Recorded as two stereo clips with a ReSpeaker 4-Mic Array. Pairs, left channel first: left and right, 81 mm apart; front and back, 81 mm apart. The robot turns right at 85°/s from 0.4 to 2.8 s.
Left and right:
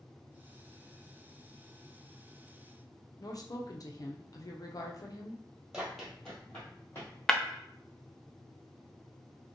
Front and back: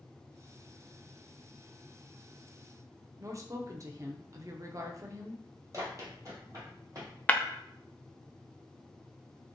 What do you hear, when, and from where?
3.2 s a woman speaking: 130° left, 0.6 m
5.7 s running footsteps: 170° right, 1.9 m; by 7.2 s 140° left, 2.5 m
7.3 s breaking glass: 20° left, 0.5 m